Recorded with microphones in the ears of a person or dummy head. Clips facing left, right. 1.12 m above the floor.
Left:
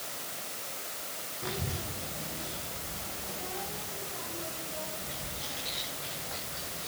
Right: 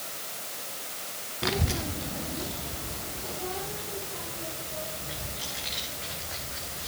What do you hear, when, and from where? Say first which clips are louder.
1.4 s a child speaking: right 8 dB; 70° right (ahead or behind), 0.8 m; by 6.9 s 40° right (ahead or behind), 5 m